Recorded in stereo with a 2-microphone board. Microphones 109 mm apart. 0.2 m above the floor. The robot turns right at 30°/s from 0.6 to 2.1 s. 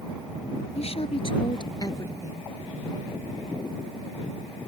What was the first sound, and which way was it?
A woman speaking, 110° left.